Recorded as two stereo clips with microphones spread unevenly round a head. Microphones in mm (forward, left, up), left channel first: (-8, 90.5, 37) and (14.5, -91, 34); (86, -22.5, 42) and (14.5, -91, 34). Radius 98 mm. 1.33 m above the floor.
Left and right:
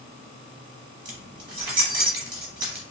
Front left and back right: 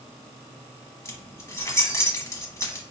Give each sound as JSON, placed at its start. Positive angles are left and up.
{"t": 1.1, "sound": "keys jangling", "azimuth_deg": -15, "distance_m": 1.1}